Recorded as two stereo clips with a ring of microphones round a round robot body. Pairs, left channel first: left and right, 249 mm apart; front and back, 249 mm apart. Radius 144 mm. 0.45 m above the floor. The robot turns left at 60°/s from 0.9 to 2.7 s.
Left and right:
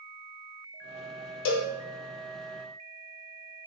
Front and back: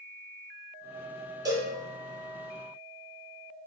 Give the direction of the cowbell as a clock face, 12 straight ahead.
9 o'clock.